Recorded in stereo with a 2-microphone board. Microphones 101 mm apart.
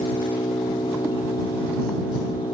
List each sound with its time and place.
0.0 s an engine running: 55° left (ahead or behind)